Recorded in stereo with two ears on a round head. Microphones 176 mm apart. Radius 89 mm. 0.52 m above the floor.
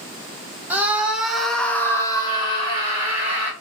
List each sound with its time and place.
0.7 s a scream: 10° right (ahead or behind), 1.3 m; by 3.5 s 30° left (ahead or behind), 1.4 m